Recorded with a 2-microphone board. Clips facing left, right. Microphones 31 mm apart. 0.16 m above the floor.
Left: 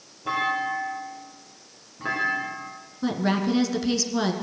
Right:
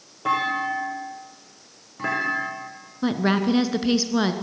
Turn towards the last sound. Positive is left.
turn(degrees=-20)  # may be behind; listen again after turning